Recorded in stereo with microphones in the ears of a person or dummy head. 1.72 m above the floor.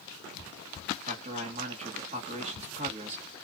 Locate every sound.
1.1 s a man speaking: 30° right (ahead or behind), 1.1 m